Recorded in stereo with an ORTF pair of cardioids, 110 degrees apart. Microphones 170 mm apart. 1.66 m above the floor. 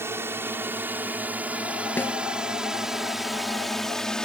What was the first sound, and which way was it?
A drone, 15° right.